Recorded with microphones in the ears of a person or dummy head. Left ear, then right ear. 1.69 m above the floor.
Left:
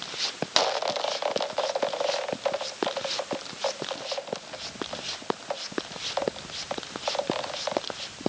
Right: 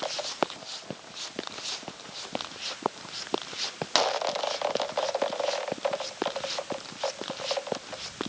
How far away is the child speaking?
No child speaking in this recording.